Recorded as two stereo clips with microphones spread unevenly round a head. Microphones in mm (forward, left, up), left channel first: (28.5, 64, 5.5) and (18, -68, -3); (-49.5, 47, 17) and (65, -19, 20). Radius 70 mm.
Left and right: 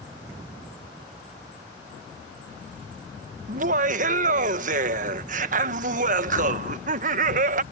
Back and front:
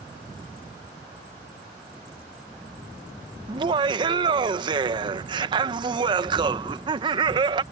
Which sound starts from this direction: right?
Laughter, at 3.5 s.